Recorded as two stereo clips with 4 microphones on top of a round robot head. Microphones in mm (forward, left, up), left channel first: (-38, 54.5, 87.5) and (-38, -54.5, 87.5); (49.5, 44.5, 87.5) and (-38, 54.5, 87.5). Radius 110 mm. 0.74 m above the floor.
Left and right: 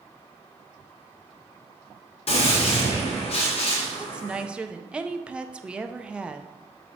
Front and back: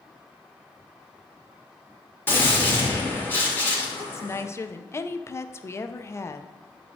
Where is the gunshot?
60° left, 2.5 m.